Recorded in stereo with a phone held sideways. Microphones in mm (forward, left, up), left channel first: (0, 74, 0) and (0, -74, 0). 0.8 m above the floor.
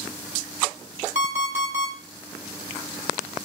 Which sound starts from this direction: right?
An alarm clock, at 1.1 s.